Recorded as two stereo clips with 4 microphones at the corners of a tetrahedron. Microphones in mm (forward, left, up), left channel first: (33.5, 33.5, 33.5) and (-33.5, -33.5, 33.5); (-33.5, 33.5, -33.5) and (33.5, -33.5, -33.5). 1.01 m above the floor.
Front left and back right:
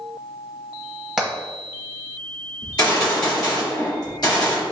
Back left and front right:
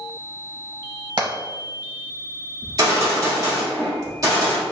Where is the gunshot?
5° left, 1.7 m.